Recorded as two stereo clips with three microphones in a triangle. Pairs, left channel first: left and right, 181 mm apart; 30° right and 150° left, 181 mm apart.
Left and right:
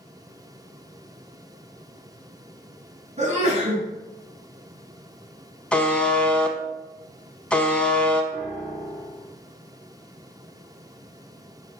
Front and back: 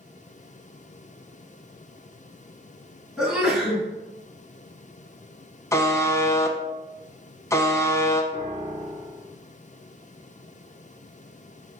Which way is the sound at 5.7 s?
15° left.